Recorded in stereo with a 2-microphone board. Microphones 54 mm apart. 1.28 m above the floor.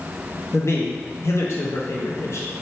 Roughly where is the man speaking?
Left.